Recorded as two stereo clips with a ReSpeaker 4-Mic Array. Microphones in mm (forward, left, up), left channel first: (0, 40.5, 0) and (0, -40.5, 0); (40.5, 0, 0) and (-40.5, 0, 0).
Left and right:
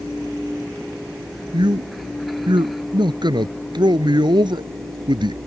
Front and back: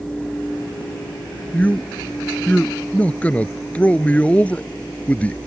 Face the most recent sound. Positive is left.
turn(degrees=-70)